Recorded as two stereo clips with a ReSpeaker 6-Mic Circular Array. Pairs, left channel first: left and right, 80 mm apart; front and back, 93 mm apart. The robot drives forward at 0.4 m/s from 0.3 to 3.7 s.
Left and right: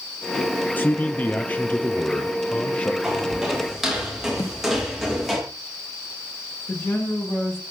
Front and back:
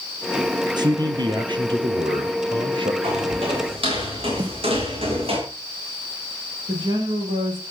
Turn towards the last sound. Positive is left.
turn(degrees=150)